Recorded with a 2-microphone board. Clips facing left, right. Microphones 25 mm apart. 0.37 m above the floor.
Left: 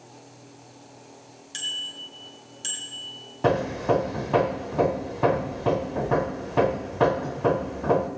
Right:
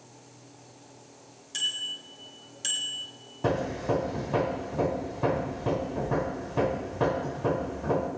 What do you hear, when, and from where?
1.5 s a bicycle bell: 15° left (ahead or behind), 3.5 m; by 3.1 s 20° right (ahead or behind), 3 m
3.4 s hammering: 25° left (ahead or behind), 0.9 m